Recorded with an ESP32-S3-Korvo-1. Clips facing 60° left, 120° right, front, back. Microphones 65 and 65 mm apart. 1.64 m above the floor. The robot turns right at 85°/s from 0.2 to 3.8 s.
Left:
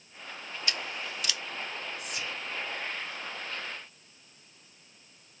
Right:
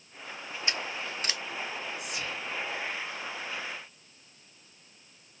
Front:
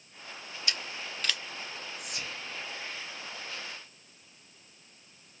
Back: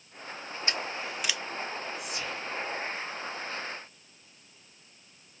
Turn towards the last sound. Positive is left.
turn(degrees=110)